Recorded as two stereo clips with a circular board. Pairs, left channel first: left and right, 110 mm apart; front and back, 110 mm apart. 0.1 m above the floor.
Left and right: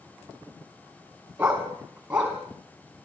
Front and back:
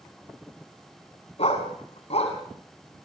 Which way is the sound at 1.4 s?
10° right.